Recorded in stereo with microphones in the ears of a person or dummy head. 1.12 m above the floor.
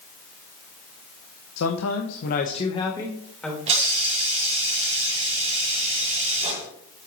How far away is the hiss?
About 1.7 m.